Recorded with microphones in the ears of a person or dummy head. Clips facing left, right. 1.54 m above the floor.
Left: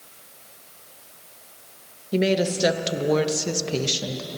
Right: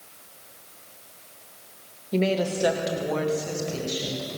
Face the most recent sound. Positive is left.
turn(degrees=90)